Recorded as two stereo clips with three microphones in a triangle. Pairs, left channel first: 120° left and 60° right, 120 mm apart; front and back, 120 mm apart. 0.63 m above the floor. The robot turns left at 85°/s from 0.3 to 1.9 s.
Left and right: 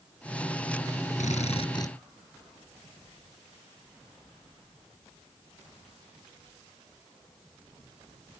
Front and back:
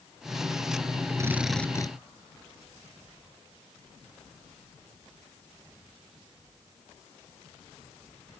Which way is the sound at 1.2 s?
115° left.